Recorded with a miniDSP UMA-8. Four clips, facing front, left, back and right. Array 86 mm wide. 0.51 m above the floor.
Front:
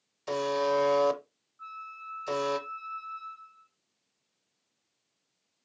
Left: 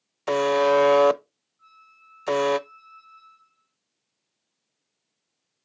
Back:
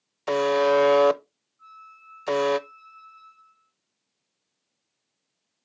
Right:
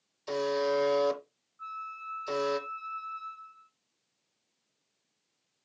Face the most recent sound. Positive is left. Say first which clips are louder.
# right 14 dB, front 5 dB
turn(degrees=-50)